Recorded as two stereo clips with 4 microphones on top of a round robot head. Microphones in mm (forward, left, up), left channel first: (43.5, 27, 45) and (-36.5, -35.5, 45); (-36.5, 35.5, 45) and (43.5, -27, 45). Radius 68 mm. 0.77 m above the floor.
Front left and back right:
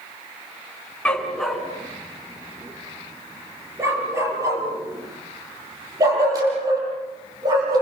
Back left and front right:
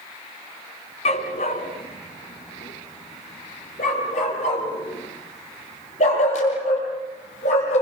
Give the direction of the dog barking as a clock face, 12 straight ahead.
8 o'clock.